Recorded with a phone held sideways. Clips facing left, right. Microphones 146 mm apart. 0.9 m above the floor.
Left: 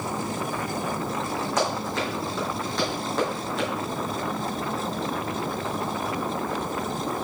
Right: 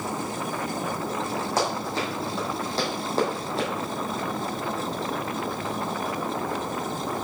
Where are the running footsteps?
30° right (ahead or behind), 3.5 m.